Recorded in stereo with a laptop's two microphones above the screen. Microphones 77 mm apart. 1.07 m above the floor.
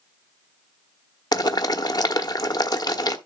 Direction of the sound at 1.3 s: 60° left (ahead or behind).